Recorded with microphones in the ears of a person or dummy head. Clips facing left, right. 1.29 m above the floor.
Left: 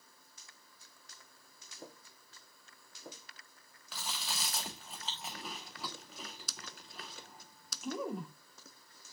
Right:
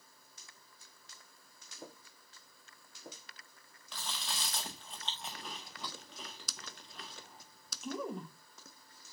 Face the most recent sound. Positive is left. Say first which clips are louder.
# even
turn(degrees=5)  # may be behind; listen again after turning